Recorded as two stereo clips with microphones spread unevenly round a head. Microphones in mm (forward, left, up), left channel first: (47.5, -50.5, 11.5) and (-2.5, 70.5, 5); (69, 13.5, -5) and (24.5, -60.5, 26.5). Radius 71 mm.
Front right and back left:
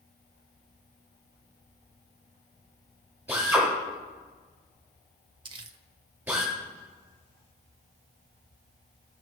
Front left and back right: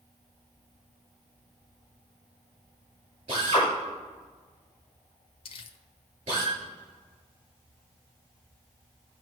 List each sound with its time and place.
3.3 s a drill: 170° right, 5 m
5.5 s crumpling: 60° left, 1.0 m